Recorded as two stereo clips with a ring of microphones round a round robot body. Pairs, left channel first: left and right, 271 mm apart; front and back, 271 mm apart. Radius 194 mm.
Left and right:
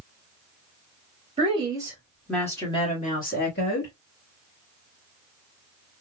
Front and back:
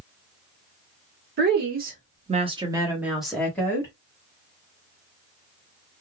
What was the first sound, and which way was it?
A woman speaking, 150° right.